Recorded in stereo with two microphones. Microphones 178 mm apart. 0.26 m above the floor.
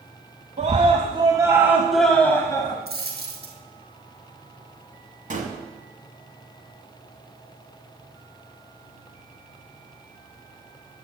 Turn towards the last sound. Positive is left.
turn(degrees=-45)  # may be behind; listen again after turning